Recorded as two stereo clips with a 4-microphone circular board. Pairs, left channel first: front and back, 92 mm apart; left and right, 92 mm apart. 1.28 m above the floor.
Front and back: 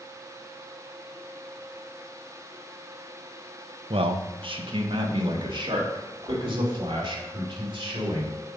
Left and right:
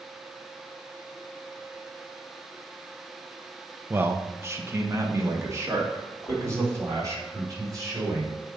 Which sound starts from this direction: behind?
A man speaking, at 3.9 s.